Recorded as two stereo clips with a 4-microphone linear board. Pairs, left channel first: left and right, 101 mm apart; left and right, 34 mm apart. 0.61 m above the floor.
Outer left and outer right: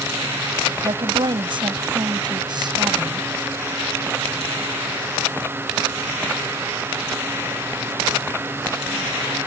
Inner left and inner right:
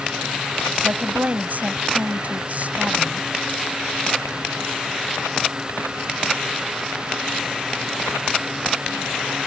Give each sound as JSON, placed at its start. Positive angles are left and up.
{"t": 0.8, "sound": "a woman speaking", "side_deg": -60}